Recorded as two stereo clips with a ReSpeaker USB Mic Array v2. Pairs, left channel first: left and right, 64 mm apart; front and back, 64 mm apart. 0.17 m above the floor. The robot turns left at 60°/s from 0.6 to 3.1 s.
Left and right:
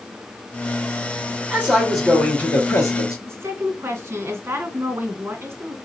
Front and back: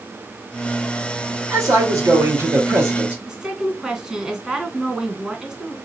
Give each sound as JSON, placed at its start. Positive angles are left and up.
{"t": 1.5, "sound": "a man speaking", "azimuth_deg": -150, "distance_m": 3.0}
{"t": 3.2, "sound": "a woman speaking", "azimuth_deg": -105, "distance_m": 1.7}